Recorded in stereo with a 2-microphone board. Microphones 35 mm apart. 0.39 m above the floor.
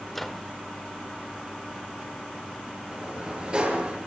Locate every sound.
0.1 s a microwave: 5° left (ahead or behind), 1.2 m
2.9 s a sliding door: 30° right (ahead or behind), 8.5 m